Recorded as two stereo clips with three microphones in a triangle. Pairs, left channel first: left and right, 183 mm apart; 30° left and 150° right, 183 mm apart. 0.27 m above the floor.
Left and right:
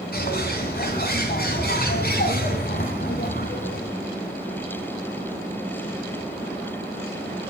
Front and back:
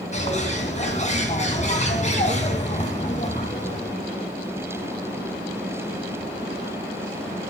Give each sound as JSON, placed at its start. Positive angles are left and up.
{"t": 0.1, "sound": "a bird", "azimuth_deg": 75, "distance_m": 2.5}